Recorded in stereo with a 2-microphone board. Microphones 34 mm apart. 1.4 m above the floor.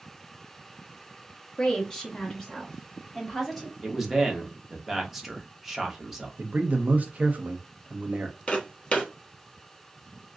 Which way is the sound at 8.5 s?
30° left (ahead or behind).